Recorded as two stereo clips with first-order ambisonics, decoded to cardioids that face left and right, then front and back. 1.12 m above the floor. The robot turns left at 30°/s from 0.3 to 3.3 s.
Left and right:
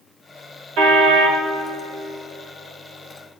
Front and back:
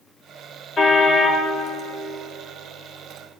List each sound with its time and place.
0.8 s a car horn: 65° right, 2.5 m; by 1.4 s 85° right, 2.5 m